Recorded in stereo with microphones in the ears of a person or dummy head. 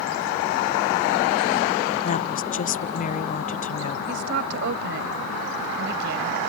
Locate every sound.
2.0 s a woman speaking: 40° left (ahead or behind)
4.1 s a woman speaking: 65° right (ahead or behind)